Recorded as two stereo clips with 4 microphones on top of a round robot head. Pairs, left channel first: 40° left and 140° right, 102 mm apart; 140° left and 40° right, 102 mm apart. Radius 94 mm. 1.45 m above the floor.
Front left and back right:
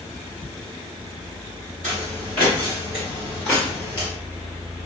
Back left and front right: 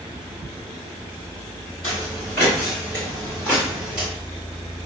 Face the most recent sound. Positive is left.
turn(degrees=35)